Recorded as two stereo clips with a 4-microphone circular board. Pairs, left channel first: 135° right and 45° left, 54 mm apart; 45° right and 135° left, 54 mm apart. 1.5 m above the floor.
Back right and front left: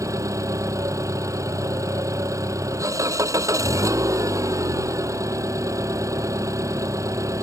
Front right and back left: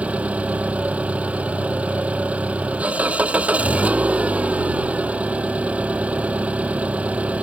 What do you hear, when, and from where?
0.0 s an engine running: 65° left